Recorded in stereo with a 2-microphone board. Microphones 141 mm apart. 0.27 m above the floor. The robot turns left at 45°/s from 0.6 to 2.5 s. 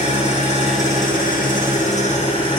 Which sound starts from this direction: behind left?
An engine running, at 0.0 s.